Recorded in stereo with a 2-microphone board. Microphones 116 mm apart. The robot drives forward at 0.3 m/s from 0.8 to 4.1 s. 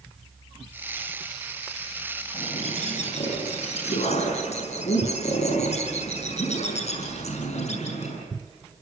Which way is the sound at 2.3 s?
80° left.